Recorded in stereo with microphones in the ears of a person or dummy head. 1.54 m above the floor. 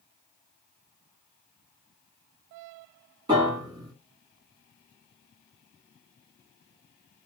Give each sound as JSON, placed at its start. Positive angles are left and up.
{"t": 3.3, "sound": "a piano", "side_deg": -25, "distance_m": 1.9}